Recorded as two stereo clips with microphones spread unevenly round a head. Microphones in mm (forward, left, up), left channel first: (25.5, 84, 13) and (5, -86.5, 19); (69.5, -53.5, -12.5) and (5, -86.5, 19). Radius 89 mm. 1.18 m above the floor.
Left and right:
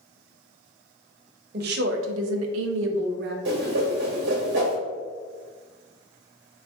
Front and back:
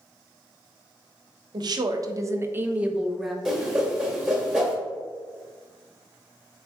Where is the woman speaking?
140° right, 0.8 m; by 3.4 s 65° right, 1.0 m.